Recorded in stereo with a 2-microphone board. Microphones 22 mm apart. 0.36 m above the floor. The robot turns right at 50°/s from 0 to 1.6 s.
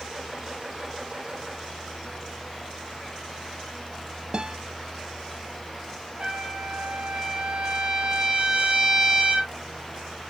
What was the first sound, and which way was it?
A guitar, 35° right (ahead or behind).